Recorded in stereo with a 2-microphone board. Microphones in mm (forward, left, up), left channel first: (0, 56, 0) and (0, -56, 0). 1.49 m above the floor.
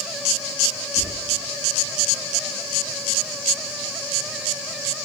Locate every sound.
1.0 s whispering: 75° left (ahead or behind), 1.8 m